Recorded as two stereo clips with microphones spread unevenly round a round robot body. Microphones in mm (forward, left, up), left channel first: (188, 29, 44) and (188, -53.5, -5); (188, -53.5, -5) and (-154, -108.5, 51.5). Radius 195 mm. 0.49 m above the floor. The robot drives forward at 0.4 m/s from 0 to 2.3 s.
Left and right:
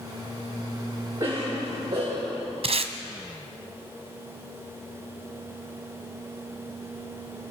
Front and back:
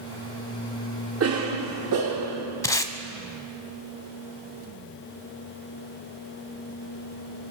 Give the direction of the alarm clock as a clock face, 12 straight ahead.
No alarm clock in this recording.